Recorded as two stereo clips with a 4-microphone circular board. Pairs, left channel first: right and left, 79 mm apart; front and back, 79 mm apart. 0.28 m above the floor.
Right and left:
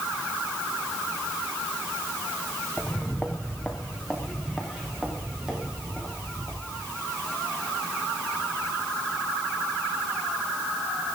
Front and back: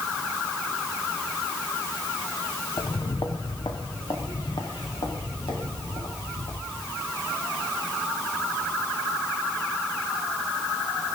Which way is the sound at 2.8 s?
20° right.